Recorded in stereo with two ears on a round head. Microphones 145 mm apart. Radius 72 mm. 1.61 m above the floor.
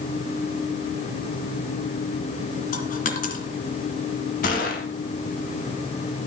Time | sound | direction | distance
2.7 | a dropped coin | 55° left (ahead or behind) | 2.5 m
4.4 | a gunshot | 55° left (ahead or behind) | 3.5 m